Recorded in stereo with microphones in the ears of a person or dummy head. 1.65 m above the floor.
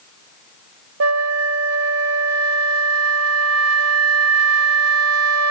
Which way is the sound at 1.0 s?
85° right.